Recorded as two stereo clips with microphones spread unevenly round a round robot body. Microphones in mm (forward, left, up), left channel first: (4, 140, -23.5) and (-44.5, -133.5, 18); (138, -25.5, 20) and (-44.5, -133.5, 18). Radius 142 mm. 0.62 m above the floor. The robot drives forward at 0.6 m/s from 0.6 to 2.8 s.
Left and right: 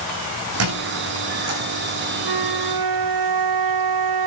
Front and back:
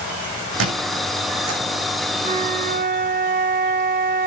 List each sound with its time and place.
0.6 s a squeak: 135° right, 6 m; by 1.6 s 140° right, 6.5 m
2.2 s a flute: 90° right, 1.1 m; by 4.3 s 105° right, 1.2 m